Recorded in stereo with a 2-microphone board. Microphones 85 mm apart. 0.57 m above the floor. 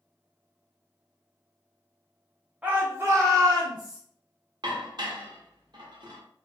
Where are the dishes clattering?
60° right (ahead or behind), 0.7 m.